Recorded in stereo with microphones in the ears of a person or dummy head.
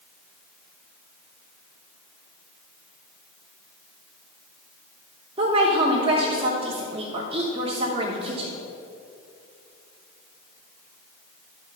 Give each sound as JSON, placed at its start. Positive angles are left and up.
{"t": 5.4, "sound": "a woman speaking", "side_deg": -30, "distance_m": 1.1}